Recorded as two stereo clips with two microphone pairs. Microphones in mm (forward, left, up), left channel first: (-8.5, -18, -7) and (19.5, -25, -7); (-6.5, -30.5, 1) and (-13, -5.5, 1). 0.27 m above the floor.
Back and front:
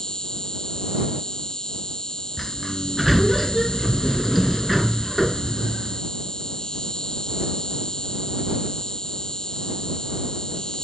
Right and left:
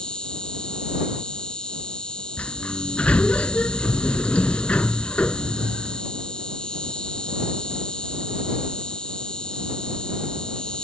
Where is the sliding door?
100° right.